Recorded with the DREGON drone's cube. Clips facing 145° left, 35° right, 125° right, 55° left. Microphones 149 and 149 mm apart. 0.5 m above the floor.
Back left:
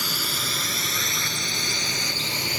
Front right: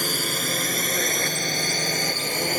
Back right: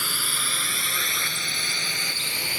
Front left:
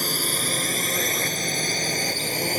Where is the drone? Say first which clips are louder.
Front right 5 dB, front left 7 dB; 5° left; by 2.6 s 10° left.